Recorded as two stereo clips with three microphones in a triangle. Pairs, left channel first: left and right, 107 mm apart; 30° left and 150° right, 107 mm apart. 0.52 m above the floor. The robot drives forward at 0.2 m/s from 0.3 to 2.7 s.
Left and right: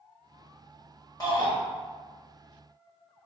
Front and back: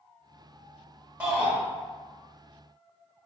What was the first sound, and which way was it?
A shout, 135° left.